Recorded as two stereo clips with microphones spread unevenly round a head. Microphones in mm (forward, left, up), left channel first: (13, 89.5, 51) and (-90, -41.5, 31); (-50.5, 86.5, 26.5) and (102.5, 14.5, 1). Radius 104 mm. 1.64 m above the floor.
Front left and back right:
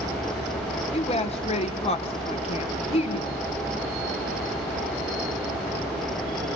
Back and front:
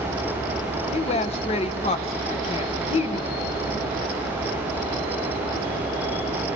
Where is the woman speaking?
105° left, 1.8 m.